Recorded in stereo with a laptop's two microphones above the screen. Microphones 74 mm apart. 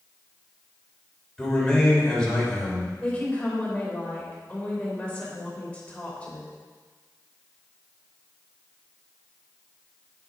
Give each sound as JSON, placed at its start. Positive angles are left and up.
{"t": 1.4, "sound": "a man speaking", "side_deg": 10, "distance_m": 3.5}
{"t": 3.0, "sound": "a woman speaking", "side_deg": 15, "distance_m": 3.0}